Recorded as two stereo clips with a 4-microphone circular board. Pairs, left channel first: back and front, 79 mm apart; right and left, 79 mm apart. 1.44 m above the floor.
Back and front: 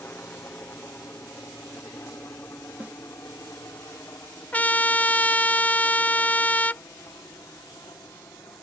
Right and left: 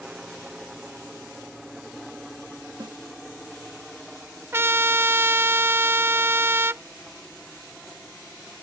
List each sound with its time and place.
0.0 s a helicopter: 160° left; by 8.6 s 175° right
2.8 s a snare drum: 70° left
4.5 s a trumpet: 125° left